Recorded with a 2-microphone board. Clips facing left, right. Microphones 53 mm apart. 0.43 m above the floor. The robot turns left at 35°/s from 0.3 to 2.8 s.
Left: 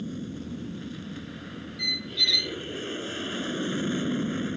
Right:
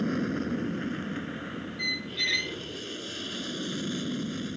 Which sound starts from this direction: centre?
A squeak, at 1.8 s.